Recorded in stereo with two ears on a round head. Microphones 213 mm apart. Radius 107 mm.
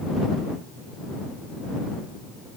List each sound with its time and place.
Only background noise.